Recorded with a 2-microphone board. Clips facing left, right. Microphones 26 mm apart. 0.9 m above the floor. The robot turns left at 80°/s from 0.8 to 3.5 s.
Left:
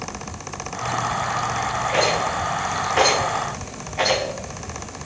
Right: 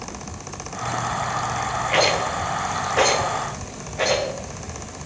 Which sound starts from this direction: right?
A rattle, at 1.9 s.